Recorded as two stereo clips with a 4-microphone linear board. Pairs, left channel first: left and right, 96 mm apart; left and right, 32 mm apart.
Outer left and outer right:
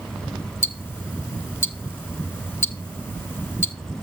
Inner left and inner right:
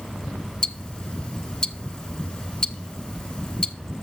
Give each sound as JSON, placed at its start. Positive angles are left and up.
{"t": 0.6, "sound": "ticking", "side_deg": 25, "distance_m": 0.8}